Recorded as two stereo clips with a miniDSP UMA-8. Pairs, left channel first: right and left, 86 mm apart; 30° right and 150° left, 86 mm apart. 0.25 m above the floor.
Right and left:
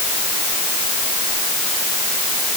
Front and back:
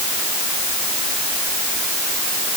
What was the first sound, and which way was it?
Only background noise.